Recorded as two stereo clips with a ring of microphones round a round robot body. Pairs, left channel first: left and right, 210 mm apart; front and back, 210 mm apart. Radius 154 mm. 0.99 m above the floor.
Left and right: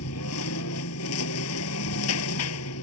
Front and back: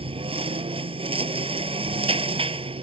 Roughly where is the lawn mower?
Behind left.